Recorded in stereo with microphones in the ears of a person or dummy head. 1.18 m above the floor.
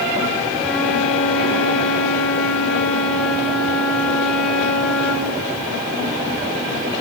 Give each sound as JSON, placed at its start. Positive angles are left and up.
{"t": 0.6, "sound": "a flute", "side_deg": 0, "distance_m": 5.0}